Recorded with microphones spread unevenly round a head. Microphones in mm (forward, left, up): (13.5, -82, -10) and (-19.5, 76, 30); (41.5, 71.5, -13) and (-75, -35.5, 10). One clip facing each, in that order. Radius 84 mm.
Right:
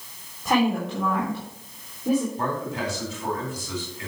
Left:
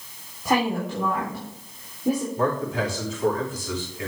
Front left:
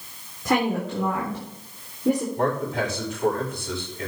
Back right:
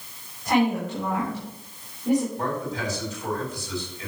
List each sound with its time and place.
0.5 s a woman speaking: 20° left, 3.5 m
2.4 s a man speaking: 80° left, 4.5 m